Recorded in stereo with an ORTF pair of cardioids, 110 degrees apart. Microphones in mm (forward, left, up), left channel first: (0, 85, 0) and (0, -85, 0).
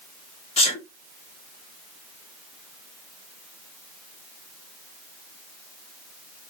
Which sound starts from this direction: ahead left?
A sneeze, at 0.6 s.